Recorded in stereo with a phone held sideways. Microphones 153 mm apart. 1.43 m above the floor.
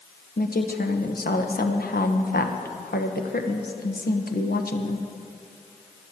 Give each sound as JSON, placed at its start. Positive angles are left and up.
{"t": 0.4, "sound": "a woman speaking", "side_deg": 85, "distance_m": 1.1}